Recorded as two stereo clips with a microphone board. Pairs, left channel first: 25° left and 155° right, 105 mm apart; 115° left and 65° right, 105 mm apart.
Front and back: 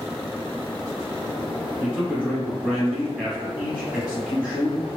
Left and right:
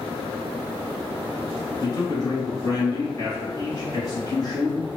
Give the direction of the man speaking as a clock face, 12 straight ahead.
8 o'clock.